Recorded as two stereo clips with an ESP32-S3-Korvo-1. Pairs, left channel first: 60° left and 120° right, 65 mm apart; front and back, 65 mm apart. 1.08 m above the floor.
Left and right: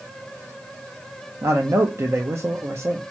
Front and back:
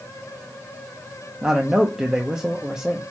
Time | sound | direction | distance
1.4 | a man speaking | 105° right | 1.0 m